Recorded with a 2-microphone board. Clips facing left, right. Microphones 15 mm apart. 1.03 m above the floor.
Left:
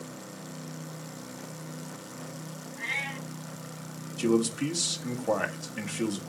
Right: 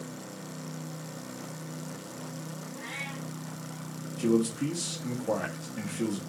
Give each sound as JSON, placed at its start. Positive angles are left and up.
{"t": 2.8, "sound": "a cat meowing", "side_deg": 55, "distance_m": 7.5}
{"t": 4.2, "sound": "a man speaking", "side_deg": 50, "distance_m": 1.6}